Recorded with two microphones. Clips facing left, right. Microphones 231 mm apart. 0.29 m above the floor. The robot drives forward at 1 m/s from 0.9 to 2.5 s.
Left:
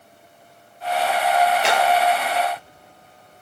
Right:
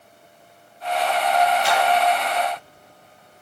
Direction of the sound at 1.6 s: 80° left.